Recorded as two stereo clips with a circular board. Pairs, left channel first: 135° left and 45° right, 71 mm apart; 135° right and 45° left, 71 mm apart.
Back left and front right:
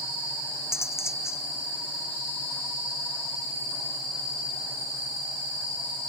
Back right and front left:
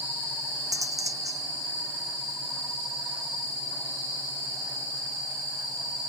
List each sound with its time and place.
0.7 s cutlery clinking: 85° left